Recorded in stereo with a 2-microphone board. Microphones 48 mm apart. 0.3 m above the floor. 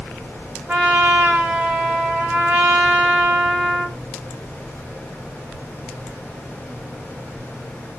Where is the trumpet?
25° right (ahead or behind), 1.1 m.